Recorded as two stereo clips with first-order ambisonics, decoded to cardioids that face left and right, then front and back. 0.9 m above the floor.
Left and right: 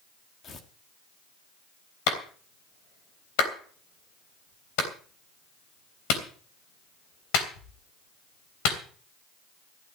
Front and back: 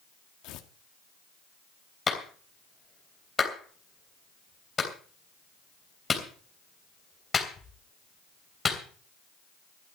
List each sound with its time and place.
0.4 s tearing paper: 30° left, 1.5 m
2.1 s a clap: 75° left, 3 m